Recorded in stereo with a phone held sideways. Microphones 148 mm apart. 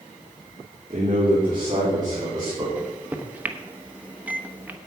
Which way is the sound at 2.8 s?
10° right (ahead or behind).